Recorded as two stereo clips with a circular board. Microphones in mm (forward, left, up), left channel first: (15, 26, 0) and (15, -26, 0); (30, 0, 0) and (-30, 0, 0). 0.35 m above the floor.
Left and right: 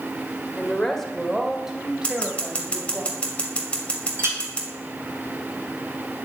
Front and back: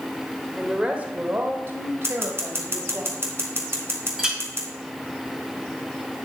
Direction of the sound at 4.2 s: 100° right.